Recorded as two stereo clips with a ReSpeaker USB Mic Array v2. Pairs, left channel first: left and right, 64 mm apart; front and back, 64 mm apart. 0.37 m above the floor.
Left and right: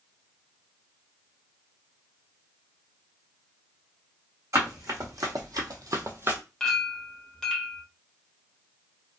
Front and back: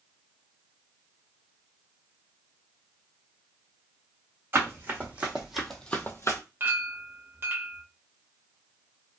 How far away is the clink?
About 0.8 m.